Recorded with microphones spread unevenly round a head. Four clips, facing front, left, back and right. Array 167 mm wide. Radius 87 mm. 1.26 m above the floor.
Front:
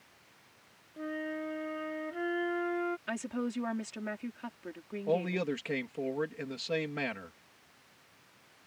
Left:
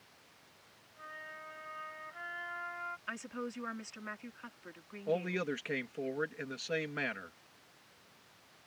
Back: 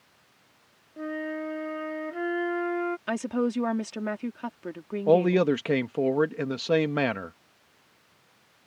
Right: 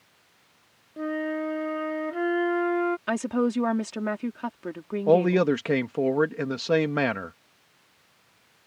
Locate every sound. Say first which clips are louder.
1.0 s a flute: right 21 dB, back 5 dB; 105° right
3.1 s a woman speaking: right 17 dB, back 8 dB; 120° right
5.1 s a man speaking: right 15 dB, back 11 dB; 130° right